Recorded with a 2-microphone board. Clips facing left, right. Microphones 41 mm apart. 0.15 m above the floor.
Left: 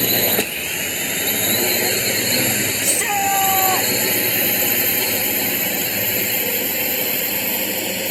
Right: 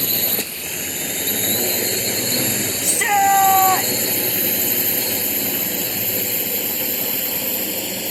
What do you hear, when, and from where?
0.0 s a drone: 45° left (ahead or behind); by 8.1 s 65° left (ahead or behind)
2.8 s a shout: 25° right (ahead or behind)